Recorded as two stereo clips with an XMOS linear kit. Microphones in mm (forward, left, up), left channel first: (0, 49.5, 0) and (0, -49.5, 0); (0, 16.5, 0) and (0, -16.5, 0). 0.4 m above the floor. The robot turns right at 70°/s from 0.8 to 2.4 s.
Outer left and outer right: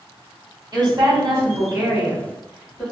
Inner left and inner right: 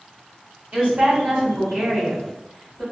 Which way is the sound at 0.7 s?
105° right.